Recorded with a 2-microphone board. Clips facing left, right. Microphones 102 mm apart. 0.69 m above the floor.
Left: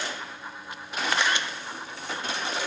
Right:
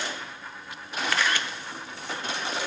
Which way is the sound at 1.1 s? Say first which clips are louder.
Left 1 dB; 20° left (ahead or behind).